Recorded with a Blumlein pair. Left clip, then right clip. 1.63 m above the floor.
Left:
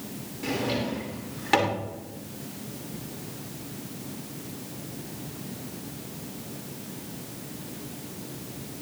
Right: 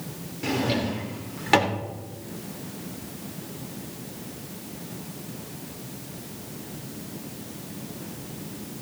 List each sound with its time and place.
0.4 s a drawer: 10° right, 2 m